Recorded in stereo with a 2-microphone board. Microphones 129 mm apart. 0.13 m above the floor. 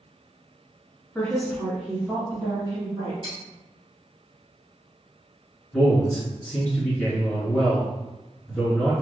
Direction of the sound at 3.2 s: 40° right (ahead or behind).